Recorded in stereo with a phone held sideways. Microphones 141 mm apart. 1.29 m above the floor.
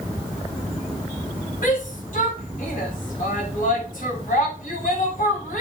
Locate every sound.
1.6 s a shout: 70° left (ahead or behind), 7 m